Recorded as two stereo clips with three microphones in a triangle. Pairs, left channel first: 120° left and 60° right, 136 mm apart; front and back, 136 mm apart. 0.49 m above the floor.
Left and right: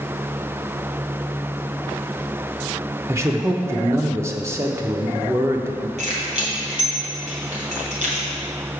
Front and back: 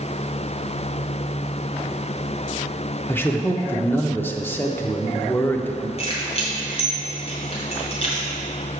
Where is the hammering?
I don't hear hammering.